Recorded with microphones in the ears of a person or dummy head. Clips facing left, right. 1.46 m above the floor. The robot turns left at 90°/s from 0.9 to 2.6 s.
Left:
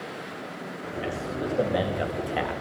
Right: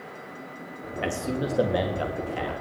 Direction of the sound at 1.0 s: 115° right.